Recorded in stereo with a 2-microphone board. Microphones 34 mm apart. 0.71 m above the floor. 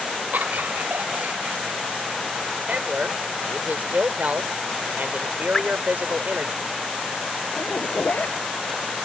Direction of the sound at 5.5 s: 25° left (ahead or behind).